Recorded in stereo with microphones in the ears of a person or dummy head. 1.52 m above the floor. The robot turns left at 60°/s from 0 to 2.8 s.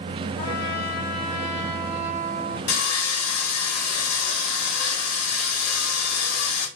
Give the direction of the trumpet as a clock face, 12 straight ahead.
9 o'clock.